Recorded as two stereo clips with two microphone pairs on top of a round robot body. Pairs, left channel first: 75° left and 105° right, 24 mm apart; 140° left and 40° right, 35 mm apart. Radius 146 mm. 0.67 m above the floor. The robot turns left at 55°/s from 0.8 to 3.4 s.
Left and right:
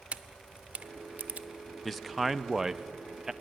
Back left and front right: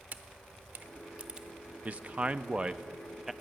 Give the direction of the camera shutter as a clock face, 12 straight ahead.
3 o'clock.